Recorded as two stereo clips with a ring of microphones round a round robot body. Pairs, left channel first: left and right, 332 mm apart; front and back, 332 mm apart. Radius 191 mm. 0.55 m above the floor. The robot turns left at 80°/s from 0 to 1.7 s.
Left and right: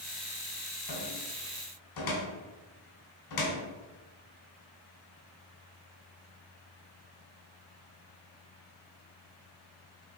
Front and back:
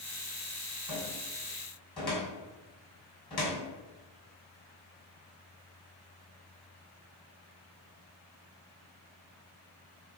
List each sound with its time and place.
0.9 s a cupboard door: 140° left, 2.5 m; by 3.7 s 75° left, 2.5 m